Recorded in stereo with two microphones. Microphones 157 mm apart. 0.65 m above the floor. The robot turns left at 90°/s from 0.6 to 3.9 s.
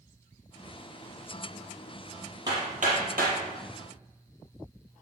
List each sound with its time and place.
2.5 s hammering: 25° right (ahead or behind), 5.5 m; by 3.4 s 70° right (ahead or behind), 5.5 m